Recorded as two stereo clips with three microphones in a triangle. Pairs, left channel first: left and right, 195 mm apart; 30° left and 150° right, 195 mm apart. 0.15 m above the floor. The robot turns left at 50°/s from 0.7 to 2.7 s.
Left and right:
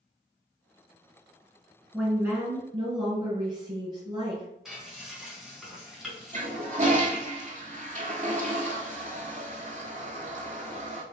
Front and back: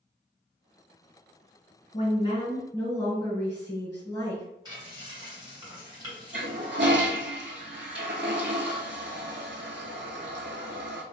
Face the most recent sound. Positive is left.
turn(degrees=-140)